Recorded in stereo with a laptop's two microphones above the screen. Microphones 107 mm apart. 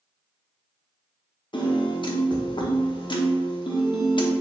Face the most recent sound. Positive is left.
turn(degrees=50)  # may be behind; listen again after turning